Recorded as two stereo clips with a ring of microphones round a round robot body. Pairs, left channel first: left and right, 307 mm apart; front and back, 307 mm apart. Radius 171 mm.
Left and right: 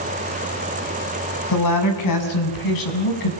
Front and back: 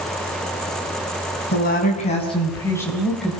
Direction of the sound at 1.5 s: 65° left.